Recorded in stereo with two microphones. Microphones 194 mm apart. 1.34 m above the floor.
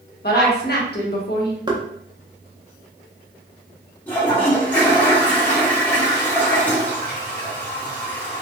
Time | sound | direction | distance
0.2 | a woman speaking | 55° left (ahead or behind) | 1.0 m
1.7 | knocking | 25° right (ahead or behind) | 0.5 m
4.1 | a toilet flushing | 10° left (ahead or behind) | 1.3 m